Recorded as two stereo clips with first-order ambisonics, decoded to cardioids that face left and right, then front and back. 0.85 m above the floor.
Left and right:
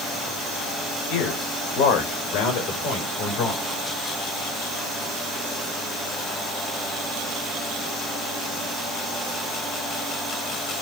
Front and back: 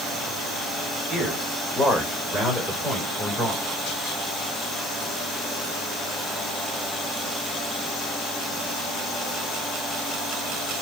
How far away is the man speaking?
About 3.5 m.